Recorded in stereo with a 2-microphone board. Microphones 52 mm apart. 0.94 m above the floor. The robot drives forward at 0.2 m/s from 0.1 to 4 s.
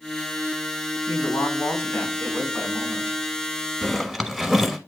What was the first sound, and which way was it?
A woman speaking, 65° left (ahead or behind).